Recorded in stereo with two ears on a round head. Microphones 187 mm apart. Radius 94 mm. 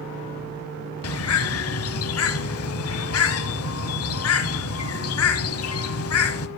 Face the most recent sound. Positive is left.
turn(degrees=75)  # may be behind; listen again after turning